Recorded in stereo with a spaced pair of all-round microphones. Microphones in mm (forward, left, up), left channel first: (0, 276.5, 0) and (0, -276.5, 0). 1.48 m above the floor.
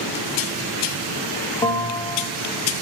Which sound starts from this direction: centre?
A bell, at 1.6 s.